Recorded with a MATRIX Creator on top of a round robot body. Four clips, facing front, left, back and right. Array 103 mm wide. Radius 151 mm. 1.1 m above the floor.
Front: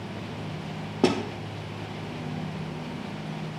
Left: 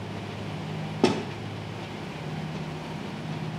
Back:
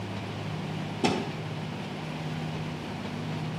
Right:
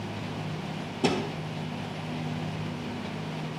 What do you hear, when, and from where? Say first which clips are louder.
1.0 s a thud: left 3 dB, front 4 dB; 45° left, 0.7 m